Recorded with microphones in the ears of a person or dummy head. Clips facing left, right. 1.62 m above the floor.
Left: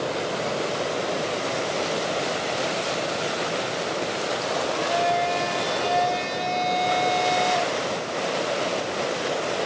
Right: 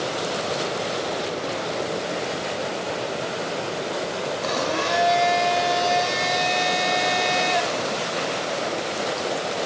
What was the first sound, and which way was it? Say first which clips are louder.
A blender: right 3 dB; 70° right (ahead or behind).